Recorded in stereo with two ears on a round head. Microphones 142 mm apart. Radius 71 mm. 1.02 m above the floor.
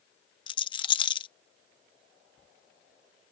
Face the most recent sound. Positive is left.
turn(degrees=30)  # may be behind; listen again after turning